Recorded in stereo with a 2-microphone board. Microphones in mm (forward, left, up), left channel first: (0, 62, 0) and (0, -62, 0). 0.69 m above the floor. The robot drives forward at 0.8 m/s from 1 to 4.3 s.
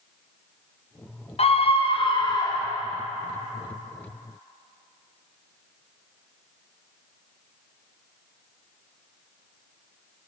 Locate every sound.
1.4 s a scream: 55° left (ahead or behind), 0.8 m; by 2.8 s 25° left (ahead or behind), 1.3 m